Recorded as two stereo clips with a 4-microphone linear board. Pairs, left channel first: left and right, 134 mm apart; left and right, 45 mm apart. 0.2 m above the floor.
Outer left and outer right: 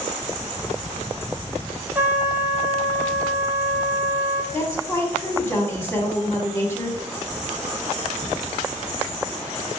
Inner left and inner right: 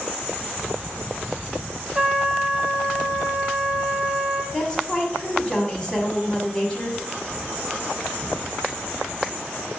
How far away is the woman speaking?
About 1.1 m.